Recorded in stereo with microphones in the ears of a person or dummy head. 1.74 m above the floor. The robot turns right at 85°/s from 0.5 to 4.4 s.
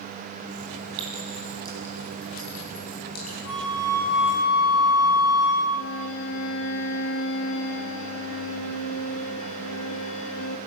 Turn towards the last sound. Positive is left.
turn(degrees=75)  # may be behind; listen again after turning